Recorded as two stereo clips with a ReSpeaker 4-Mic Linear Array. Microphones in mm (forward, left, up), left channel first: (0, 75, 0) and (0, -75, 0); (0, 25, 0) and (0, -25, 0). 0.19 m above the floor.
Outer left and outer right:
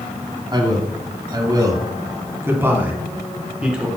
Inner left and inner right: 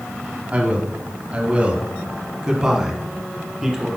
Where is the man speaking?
25° right (ahead or behind), 1.1 m; by 3.9 s 5° right (ahead or behind), 1.8 m.